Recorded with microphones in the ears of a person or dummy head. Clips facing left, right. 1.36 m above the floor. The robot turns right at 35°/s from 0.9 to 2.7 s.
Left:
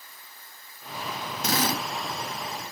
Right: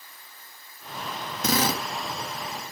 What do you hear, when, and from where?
1.4 s a drill: 80° right, 1.8 m; by 1.9 s 70° right (ahead or behind), 1.8 m